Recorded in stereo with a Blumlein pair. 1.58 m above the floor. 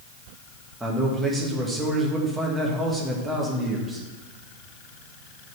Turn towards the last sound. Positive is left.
turn(degrees=-5)